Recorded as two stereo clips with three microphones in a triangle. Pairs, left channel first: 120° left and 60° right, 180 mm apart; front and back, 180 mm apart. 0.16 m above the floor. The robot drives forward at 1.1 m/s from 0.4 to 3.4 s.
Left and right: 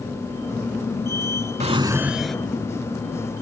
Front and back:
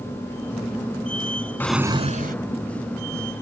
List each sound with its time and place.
1.6 s a drawer: 70° right; by 2.4 s 155° right